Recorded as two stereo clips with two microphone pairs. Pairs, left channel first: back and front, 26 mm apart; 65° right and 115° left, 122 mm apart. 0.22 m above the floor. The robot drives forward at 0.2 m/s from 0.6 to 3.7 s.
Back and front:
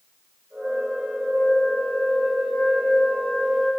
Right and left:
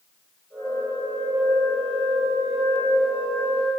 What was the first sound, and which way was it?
A flute, 85° right.